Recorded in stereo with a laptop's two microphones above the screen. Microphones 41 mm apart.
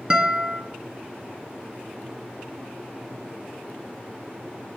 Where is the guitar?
25° right (ahead or behind), 2.5 m.